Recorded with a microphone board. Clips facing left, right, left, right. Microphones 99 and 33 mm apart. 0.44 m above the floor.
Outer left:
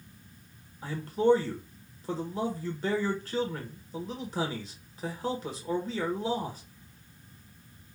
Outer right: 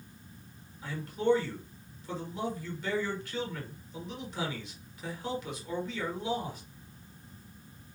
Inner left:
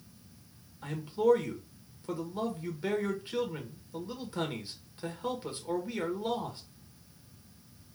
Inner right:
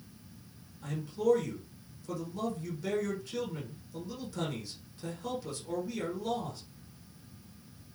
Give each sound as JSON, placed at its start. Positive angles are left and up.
{"t": 0.8, "sound": "a man speaking", "side_deg": 40, "distance_m": 1.6}